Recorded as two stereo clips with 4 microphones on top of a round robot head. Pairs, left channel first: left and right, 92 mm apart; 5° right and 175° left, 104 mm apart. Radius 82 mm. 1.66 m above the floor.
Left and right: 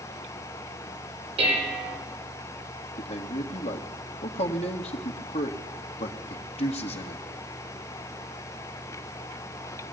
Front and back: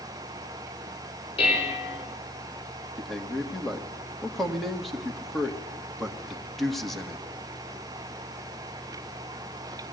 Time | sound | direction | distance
1.4 | dishes clattering | 60° right | 4.5 m
3.0 | a man speaking | 80° left | 1.9 m